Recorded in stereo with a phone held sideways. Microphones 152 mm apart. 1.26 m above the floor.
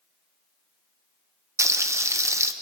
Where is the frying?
20° right (ahead or behind), 1.1 m.